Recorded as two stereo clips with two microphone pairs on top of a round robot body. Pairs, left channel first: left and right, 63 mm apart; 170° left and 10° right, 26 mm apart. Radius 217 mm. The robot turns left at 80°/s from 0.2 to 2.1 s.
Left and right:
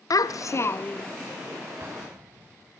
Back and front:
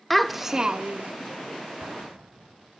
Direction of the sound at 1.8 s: 35° right.